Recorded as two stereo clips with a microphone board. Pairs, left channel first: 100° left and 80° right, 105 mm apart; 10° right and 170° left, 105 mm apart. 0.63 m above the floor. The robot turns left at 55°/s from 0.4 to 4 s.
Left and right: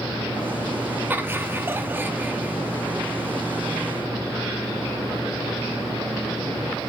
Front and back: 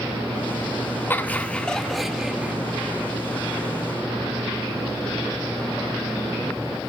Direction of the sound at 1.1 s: 50° right.